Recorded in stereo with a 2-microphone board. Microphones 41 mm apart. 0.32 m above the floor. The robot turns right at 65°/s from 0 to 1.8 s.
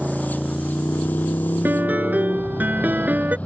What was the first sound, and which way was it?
A motorcycle, 15° right (ahead or behind).